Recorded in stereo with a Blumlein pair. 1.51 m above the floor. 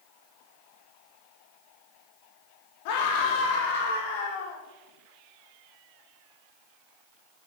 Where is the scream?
45° left, 3.5 m; by 4.6 s 50° left, 4.5 m.